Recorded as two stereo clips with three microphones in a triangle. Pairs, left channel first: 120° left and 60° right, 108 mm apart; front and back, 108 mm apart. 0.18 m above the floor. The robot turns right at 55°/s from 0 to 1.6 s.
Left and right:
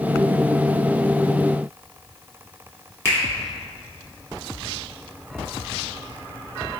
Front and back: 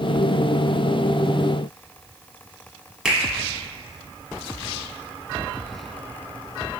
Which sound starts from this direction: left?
A finger snap, at 3.0 s.